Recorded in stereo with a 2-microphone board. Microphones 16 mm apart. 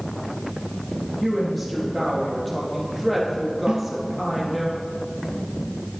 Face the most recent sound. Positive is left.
turn(degrees=-60)  # may be behind; listen again after turning